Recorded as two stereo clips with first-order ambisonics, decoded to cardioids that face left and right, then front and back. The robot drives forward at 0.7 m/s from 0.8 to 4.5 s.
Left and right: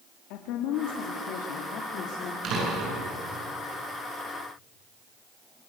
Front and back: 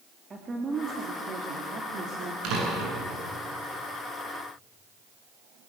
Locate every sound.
0.3 s a woman speaking: 110° left, 2.5 m; by 2.3 s 130° left, 3 m
2.4 s a door slam: 140° right, 8.5 m; by 3.0 s 145° right, 8.5 m